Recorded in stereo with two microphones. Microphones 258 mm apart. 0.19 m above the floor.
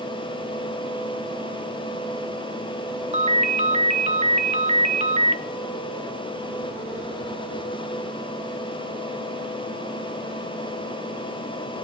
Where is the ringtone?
25° right (ahead or behind), 0.7 m.